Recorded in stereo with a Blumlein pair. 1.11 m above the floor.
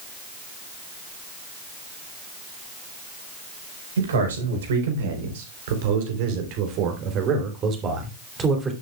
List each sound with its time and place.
4.0 s a man speaking: 65° right, 4 m; by 8.7 s 15° right, 3 m